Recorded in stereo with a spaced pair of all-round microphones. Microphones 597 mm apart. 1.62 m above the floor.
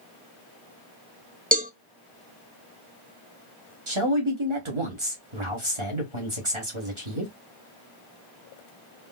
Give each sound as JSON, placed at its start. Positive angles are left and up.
{"t": 1.5, "sound": "a cowbell", "side_deg": -15, "distance_m": 0.6}
{"t": 3.9, "sound": "a man speaking", "side_deg": -50, "distance_m": 1.8}